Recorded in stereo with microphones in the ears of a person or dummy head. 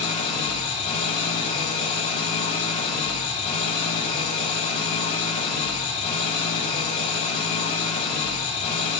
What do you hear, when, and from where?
0.0 s an engine running: 40° left (ahead or behind), 3 m